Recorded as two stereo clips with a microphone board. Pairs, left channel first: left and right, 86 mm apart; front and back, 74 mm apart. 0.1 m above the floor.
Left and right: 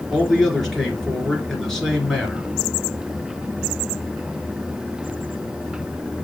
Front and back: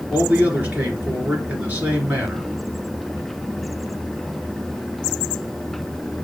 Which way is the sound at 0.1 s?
175° left.